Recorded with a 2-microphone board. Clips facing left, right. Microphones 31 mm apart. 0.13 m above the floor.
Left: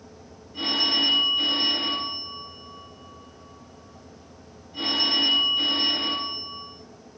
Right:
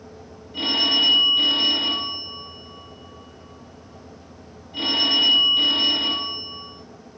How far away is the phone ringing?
About 2 m.